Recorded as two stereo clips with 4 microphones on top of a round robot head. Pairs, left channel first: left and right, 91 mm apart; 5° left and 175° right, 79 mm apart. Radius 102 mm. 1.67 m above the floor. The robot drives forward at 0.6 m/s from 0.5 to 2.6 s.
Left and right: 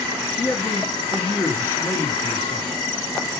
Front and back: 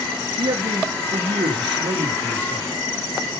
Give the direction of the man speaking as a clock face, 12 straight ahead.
7 o'clock.